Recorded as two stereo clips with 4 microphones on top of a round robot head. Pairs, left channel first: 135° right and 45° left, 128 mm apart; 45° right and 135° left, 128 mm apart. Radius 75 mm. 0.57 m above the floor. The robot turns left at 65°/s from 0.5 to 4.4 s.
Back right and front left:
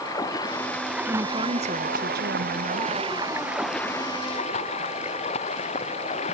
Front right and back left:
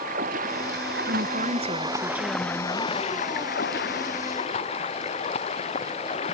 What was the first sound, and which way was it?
Running water, 160° left.